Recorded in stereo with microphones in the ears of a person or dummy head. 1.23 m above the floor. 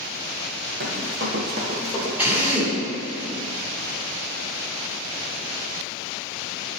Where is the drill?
10° right (ahead or behind), 2.0 m.